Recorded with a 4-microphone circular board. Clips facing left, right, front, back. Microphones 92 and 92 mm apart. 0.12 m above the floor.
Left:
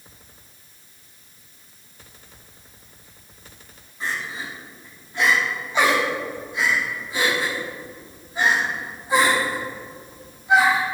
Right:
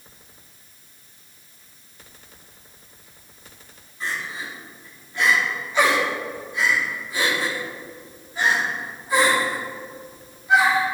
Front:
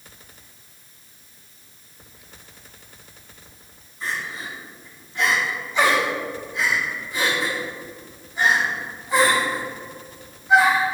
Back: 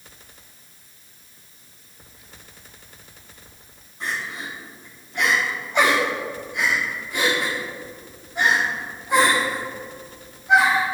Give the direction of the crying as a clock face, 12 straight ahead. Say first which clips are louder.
Left 1 dB, even; 7 o'clock.